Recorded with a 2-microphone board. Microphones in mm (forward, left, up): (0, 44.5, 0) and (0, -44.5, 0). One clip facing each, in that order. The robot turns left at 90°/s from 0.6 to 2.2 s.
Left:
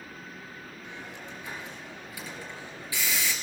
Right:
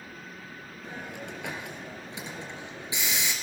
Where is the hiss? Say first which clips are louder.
Right 5 dB; 35° right (ahead or behind), 3.5 m; by 3.3 s 20° right (ahead or behind), 3.5 m.